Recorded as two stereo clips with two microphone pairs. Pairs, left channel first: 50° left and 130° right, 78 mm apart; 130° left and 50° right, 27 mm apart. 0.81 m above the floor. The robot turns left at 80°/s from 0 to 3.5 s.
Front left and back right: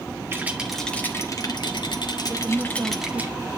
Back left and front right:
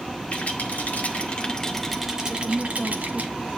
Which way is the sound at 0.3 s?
170° left.